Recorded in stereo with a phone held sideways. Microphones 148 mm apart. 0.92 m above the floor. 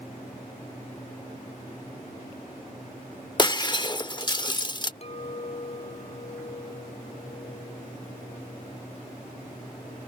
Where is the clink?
45° left (ahead or behind).